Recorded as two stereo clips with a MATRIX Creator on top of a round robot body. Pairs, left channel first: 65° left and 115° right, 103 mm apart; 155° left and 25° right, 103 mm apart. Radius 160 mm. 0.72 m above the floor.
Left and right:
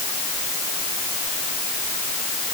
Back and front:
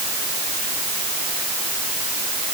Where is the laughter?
No laughter in this recording.